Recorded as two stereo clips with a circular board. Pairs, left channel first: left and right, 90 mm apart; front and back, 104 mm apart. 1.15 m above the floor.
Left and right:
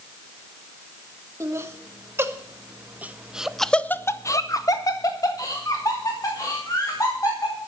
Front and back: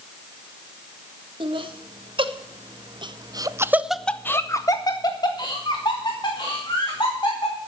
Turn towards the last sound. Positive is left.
turn(degrees=40)